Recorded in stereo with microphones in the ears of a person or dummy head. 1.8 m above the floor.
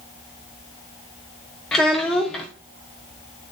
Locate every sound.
1.7 s a child speaking: 5° left (ahead or behind), 0.6 m